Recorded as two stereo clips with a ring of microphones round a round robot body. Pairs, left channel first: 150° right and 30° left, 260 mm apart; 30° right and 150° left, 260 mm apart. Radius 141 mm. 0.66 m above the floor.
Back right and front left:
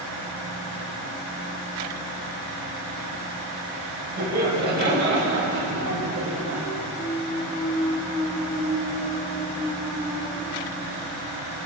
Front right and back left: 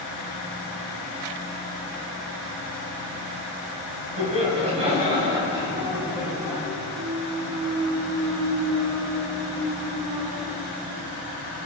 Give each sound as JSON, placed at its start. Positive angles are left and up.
{"t": 4.2, "sound": "laughter", "azimuth_deg": 85, "distance_m": 4.0}
{"t": 7.0, "sound": "a clunk", "azimuth_deg": 135, "distance_m": 1.5}